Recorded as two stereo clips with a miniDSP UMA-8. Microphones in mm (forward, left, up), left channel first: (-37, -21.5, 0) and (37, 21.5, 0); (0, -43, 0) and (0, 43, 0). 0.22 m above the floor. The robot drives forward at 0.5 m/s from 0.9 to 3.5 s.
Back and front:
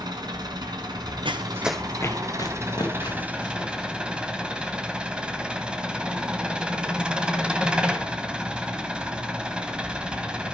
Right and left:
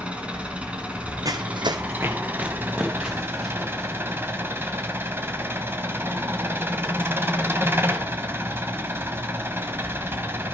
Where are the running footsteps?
45° left, 0.7 m; by 4.7 s straight behind, 4.5 m.